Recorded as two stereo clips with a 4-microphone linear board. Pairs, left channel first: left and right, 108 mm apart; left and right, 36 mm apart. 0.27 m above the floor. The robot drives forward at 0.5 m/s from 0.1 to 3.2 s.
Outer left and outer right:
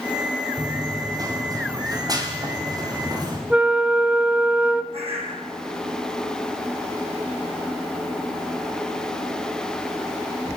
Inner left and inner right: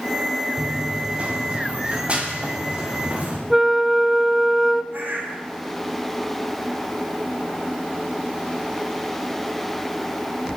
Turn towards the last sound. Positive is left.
turn(degrees=-65)  # may be behind; listen again after turning